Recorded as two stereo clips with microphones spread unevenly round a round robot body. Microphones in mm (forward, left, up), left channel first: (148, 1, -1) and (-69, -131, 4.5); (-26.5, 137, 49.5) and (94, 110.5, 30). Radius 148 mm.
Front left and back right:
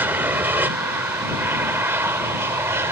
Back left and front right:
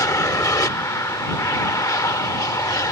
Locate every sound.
0.0 s an aircraft: 140° left; by 2.9 s 145° left